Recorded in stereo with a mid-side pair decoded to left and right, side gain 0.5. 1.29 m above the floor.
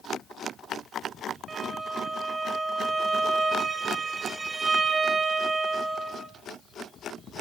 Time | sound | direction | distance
1.5 | a violin | 30° right | 1.5 m